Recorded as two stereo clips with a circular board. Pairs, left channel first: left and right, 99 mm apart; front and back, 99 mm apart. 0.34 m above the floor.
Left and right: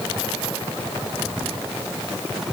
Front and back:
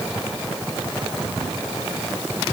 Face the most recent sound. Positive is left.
No sound to turn to.